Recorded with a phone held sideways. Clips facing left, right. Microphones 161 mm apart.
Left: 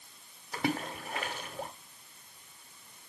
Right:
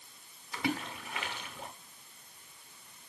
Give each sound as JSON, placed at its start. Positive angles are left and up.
{"t": 0.5, "sound": "a splash", "side_deg": 45, "distance_m": 1.4}